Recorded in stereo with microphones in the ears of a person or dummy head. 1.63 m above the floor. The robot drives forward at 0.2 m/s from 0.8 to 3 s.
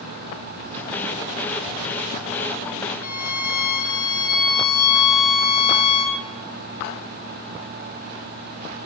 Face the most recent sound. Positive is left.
turn(degrees=45)  # may be behind; listen again after turning